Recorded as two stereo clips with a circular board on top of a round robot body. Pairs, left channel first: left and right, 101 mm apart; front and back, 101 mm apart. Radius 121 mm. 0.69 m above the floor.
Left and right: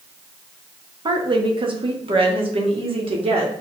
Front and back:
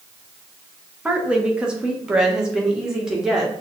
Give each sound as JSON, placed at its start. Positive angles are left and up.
{"t": 1.1, "sound": "a woman speaking", "azimuth_deg": -105, "distance_m": 1.5}